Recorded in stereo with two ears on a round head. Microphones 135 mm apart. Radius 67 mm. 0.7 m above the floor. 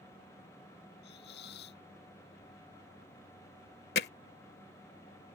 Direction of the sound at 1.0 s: 80° left.